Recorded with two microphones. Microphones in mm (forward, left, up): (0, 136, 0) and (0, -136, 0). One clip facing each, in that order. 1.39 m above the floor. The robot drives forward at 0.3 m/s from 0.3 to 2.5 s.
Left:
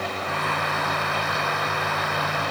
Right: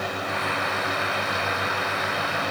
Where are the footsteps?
I don't hear footsteps.